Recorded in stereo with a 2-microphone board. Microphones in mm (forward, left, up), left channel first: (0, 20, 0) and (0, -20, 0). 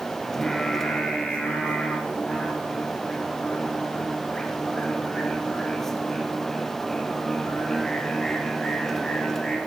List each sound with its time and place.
0.2 s singing: 10° left (ahead or behind), 4 m